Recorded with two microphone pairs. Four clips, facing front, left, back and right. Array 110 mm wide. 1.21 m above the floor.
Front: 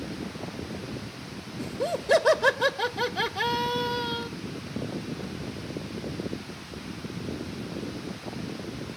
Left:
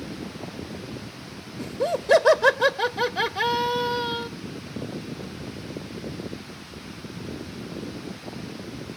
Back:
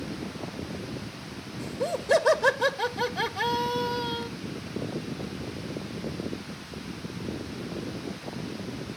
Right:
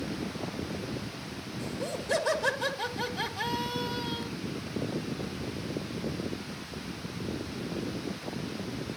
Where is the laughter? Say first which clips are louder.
Left 10 dB, front 1 dB; 85° left, 1.4 m.